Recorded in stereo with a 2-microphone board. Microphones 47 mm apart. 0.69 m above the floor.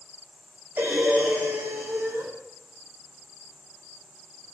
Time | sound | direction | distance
0.8 | breathing | 40° right (ahead or behind) | 1.6 m